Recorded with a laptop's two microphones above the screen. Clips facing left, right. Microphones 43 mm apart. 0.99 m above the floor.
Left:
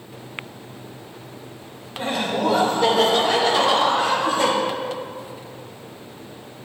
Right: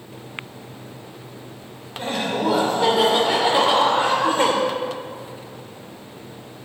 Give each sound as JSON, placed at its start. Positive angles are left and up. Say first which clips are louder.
{"t": 2.0, "sound": "laughter", "louder": "left 1 dB", "side_deg": 5, "distance_m": 3.5}